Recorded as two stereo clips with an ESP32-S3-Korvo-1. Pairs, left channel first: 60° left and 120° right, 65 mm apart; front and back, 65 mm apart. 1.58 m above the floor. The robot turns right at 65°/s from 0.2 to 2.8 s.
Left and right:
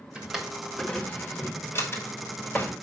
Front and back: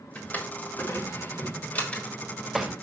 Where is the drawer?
50° right, 1.6 m; by 2.7 s 115° left, 1.6 m.